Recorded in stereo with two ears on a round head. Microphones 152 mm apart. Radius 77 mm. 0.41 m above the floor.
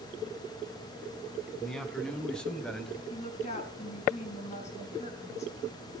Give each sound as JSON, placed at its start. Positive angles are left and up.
{"t": 1.6, "sound": "a man speaking", "side_deg": 5, "distance_m": 3.0}
{"t": 3.1, "sound": "a woman speaking", "side_deg": 45, "distance_m": 5.0}